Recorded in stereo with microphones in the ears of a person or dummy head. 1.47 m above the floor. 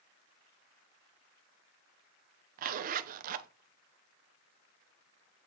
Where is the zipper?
55° right (ahead or behind), 0.8 m.